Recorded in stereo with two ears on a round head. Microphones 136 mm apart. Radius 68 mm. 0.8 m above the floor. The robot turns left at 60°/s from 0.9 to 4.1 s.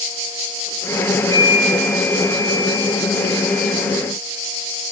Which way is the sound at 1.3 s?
135° right.